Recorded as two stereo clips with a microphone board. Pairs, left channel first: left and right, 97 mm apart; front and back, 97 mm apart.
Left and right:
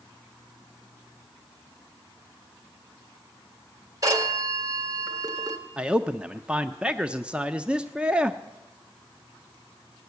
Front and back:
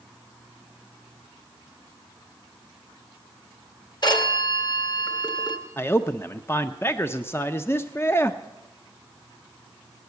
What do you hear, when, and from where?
4.0 s a phone ringing: 40° right, 1.8 m
5.8 s a man speaking: 25° right, 0.6 m